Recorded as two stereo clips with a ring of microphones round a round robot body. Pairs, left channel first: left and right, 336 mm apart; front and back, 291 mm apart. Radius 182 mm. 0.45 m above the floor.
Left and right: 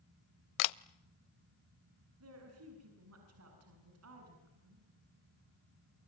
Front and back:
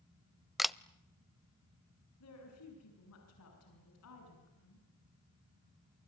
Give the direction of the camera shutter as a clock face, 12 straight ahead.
9 o'clock.